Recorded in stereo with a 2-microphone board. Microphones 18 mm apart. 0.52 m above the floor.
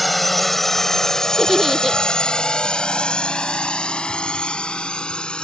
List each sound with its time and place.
0.0 s a drone: 5° left (ahead or behind); by 5.5 s 70° left (ahead or behind)
1.4 s a giggle: centre (ahead or behind)